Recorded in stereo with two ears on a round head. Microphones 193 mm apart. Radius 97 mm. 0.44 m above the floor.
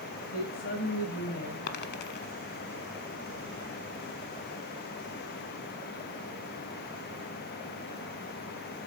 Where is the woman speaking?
60° left (ahead or behind), 2.5 m; by 1.6 s 50° left (ahead or behind), 3 m.